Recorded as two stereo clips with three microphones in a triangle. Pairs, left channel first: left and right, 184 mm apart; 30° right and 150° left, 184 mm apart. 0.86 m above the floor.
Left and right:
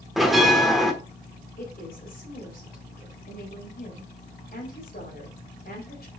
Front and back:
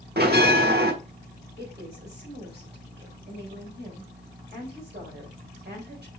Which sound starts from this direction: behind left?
A woman speaking, at 1.6 s.